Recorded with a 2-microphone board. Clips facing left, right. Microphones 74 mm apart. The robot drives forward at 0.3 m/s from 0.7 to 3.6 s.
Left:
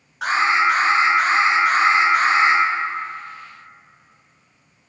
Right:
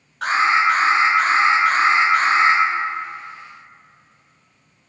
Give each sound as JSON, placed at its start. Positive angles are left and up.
{"t": 0.2, "sound": "an alarm", "side_deg": 10, "distance_m": 1.0}